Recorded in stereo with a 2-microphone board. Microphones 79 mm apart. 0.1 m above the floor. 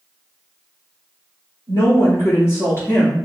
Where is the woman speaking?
50° left (ahead or behind), 1.7 m; by 3.3 s 15° left (ahead or behind), 1.1 m.